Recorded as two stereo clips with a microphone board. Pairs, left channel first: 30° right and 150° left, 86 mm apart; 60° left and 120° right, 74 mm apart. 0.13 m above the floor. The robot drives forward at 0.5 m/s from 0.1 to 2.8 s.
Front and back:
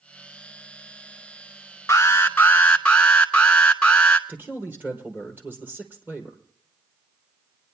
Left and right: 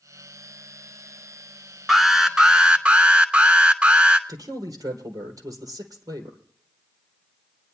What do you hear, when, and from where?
1.9 s an alarm: 35° right, 1.2 m; by 4.2 s 80° right, 1.0 m
4.3 s a man speaking: 145° right, 2.5 m